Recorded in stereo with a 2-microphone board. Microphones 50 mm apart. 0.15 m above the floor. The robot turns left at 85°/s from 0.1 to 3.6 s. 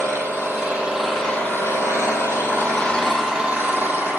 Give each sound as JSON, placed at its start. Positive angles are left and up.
{"t": 0.0, "sound": "an engine running", "azimuth_deg": -100, "distance_m": 4.0}